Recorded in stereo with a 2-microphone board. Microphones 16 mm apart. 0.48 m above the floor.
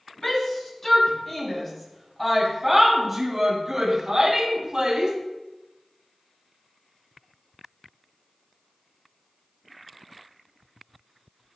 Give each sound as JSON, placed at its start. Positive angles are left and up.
{"t": 0.2, "sound": "a shout", "side_deg": 35, "distance_m": 3.0}